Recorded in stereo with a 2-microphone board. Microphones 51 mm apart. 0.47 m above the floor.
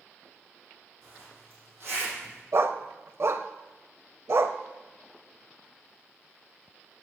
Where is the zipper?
40° right (ahead or behind), 5.5 m.